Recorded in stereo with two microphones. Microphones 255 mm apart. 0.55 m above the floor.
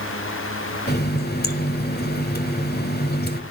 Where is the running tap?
40° left (ahead or behind), 1.6 m.